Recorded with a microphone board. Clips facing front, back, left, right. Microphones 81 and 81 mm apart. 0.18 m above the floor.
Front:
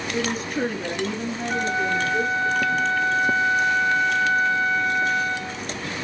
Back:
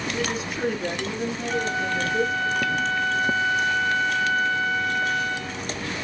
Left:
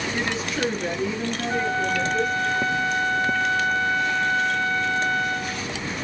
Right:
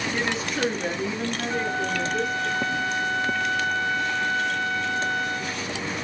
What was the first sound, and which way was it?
A woman speaking, 5° right.